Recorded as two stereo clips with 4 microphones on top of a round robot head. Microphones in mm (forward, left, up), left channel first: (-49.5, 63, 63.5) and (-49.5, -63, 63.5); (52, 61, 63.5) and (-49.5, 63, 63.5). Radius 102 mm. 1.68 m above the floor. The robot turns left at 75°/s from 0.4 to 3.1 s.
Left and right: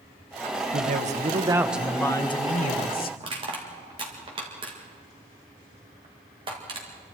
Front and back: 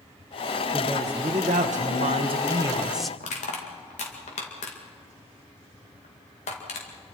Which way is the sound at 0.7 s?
95° right.